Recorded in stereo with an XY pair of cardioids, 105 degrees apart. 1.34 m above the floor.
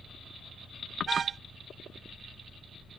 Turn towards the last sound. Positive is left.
turn(degrees=-45)